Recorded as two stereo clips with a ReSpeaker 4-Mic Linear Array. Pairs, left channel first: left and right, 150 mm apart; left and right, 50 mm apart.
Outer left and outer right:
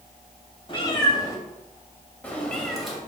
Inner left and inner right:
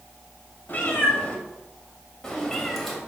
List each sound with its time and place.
0.7 s a cat meowing: 35° left (ahead or behind), 2 m; by 3.0 s centre (ahead or behind), 2.5 m